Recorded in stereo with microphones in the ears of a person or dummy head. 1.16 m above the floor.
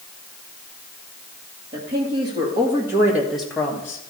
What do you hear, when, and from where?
1.7 s a woman speaking: 35° right (ahead or behind), 3 m; by 4.0 s 25° left (ahead or behind), 1.5 m